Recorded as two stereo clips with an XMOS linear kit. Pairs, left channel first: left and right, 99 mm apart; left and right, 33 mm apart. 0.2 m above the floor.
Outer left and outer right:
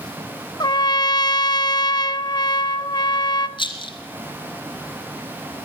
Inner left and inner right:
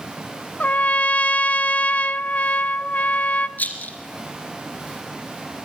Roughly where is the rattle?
Left.